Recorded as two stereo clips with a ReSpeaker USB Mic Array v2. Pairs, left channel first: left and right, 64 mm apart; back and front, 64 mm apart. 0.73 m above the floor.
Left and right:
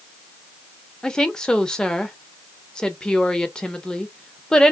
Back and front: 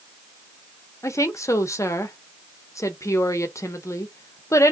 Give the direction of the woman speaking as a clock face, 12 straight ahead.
6 o'clock.